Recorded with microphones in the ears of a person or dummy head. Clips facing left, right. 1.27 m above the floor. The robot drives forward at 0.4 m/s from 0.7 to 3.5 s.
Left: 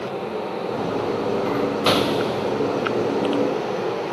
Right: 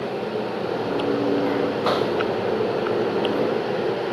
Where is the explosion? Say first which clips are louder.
Left 1 dB; 45° left (ahead or behind), 1.2 m; by 2.5 s 55° left (ahead or behind), 1.0 m.